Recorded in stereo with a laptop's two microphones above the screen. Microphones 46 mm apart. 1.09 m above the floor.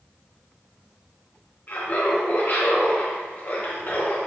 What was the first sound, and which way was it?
Laughter, 45° left (ahead or behind).